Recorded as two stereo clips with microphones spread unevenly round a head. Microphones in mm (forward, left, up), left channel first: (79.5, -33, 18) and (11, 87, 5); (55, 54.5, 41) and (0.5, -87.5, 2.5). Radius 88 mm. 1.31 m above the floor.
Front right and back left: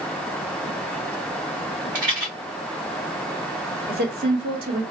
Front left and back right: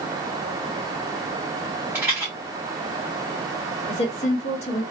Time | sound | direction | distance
1.9 | a rattle | 170° left | 1.6 m
3.9 | a woman speaking | 125° left | 1.0 m